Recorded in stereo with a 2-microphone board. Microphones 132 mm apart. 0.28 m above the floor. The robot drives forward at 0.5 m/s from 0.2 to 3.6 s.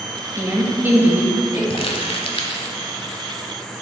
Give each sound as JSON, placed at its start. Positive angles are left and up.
{"t": 0.3, "sound": "a woman speaking", "side_deg": -20, "distance_m": 0.9}
{"t": 1.7, "sound": "crumpling", "side_deg": 45, "distance_m": 0.8}